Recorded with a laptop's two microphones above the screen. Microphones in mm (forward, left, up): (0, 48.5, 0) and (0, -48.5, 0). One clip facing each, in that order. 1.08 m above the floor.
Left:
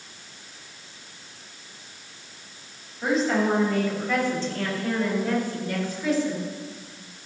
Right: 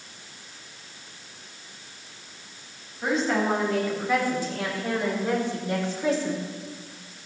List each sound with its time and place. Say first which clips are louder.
3.0 s a woman speaking: left 2 dB; 5° left (ahead or behind), 6 m; by 6.5 s 40° right (ahead or behind), 3 m